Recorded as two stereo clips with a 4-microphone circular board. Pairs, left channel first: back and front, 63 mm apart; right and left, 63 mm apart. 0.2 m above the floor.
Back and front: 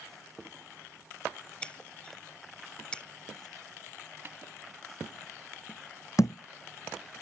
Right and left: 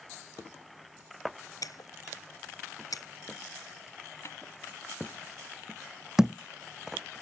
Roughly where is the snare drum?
Ahead right.